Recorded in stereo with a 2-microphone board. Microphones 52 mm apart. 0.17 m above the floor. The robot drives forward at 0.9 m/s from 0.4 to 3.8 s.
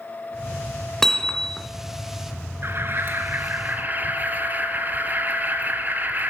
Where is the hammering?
10° left (ahead or behind), 1.9 m; by 1.7 s 15° left (ahead or behind), 1.6 m.